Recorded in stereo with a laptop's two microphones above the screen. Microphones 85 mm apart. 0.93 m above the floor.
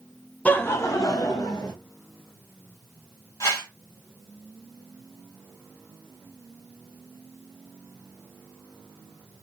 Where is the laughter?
15° left (ahead or behind), 0.5 m; by 1.7 s 50° left (ahead or behind), 1.0 m.